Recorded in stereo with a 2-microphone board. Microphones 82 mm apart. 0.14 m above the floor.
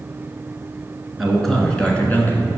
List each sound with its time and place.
1.2 s a man speaking: 5° right (ahead or behind), 1.6 m; by 2.5 s 30° left (ahead or behind), 1.4 m